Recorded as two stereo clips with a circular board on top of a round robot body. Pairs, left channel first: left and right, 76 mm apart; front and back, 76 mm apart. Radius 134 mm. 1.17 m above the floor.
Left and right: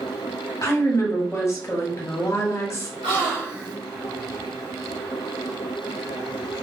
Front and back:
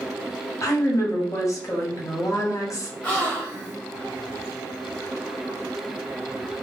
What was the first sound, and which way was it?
A woman speaking, 40° left.